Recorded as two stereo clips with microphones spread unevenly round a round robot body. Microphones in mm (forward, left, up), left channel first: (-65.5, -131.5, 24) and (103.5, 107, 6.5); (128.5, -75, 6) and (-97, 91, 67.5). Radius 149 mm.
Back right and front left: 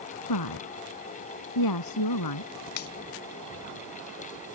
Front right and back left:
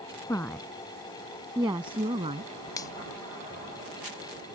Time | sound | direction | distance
0.3 | a woman speaking | 115° right | ?
2.8 | a finger snap | 100° right | ?